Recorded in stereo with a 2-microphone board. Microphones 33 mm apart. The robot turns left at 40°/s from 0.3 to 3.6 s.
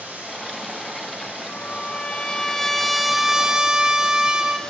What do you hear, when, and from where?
0.0 s running water: 65° right, 6.5 m; by 4.7 s 165° left, 6.5 m
1.5 s a trumpet: 60° left, 1.7 m; by 4.6 s 25° right, 1.7 m